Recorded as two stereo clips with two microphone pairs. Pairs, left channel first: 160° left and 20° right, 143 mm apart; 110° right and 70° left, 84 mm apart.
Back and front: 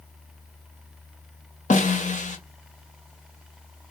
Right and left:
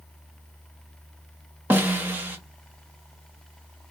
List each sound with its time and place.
1.7 s a snare drum: 135° left, 0.8 m